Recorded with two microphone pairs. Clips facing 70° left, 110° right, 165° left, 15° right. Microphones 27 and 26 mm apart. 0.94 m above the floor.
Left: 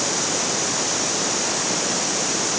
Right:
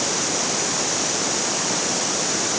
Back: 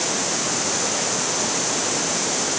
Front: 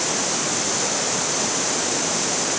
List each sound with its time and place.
Only background noise.